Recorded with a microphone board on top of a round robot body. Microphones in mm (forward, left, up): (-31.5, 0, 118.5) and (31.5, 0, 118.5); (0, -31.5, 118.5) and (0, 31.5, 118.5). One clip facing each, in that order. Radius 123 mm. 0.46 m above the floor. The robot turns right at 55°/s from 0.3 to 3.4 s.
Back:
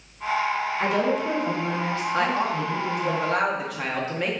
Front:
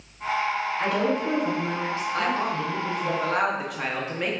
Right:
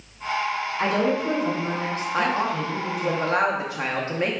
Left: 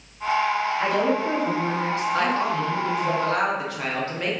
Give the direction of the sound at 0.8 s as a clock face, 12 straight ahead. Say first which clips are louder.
Back 1 dB, right 3 dB; 4 o'clock.